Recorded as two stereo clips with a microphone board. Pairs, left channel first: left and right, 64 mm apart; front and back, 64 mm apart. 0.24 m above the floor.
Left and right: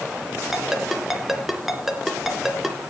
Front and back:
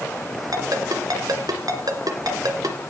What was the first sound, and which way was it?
A ringtone, 175° right.